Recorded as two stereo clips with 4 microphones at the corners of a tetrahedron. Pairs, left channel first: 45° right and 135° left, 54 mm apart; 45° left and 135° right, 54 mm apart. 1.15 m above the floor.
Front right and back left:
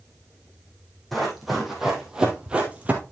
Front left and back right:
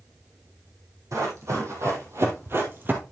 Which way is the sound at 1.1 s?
135° right.